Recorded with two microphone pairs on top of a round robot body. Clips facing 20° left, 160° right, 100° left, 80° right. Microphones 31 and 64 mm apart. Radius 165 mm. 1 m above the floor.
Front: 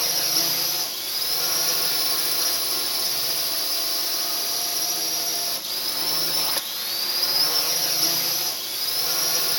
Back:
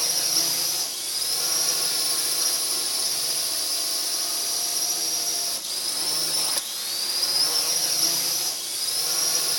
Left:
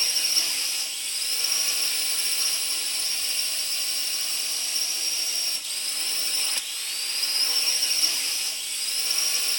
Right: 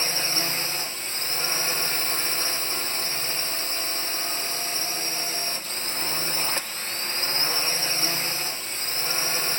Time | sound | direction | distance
0.0 | a drone | 50° right | ?